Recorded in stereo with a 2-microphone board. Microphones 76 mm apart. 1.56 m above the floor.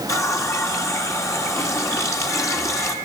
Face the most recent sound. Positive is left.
turn(degrees=45)  # may be behind; listen again after turning